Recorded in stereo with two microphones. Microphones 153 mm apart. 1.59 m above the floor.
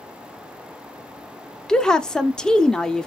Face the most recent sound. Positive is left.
turn(degrees=5)  # may be behind; listen again after turning